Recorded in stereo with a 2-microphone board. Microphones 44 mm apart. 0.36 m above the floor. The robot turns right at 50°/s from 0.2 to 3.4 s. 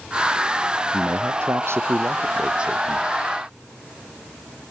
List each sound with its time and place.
0.9 s a man speaking: 110° right; by 3.1 s straight ahead